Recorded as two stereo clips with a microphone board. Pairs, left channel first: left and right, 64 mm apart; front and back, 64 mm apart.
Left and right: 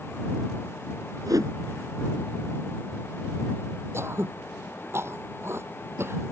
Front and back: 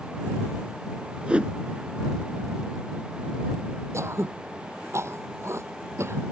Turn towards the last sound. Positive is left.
turn(degrees=-135)